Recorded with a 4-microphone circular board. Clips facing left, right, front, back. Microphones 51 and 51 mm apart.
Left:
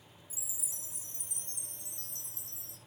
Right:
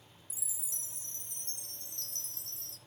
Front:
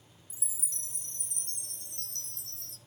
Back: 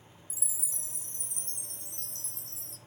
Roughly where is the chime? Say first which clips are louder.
Left 1 dB, even; ahead.